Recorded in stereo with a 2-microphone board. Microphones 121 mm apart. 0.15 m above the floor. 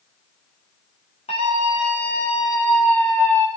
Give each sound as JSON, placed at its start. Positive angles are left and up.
{"t": 1.3, "sound": "a scream", "side_deg": 65, "distance_m": 9.0}